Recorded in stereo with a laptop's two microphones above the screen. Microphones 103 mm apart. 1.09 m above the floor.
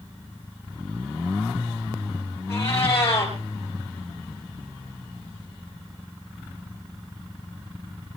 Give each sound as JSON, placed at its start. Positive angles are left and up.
{"t": 2.5, "sound": "a cat meowing", "side_deg": 20, "distance_m": 6.5}